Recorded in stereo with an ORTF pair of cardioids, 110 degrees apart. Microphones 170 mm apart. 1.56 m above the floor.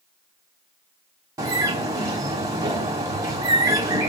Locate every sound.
1.4 s a bird: 20° right, 1.4 m